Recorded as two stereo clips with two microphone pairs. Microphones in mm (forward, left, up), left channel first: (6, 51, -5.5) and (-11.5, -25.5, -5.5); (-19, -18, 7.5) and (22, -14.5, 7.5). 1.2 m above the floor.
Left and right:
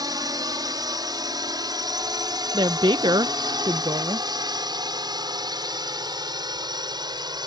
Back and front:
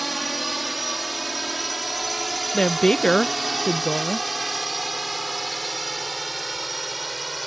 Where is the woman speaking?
95° right.